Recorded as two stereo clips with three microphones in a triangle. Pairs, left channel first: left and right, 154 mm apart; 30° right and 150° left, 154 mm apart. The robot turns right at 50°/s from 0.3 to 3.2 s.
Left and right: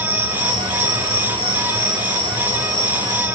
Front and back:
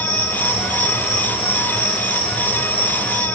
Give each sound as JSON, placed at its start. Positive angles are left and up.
{"t": 0.0, "sound": "an insect", "azimuth_deg": -145, "distance_m": 10.0}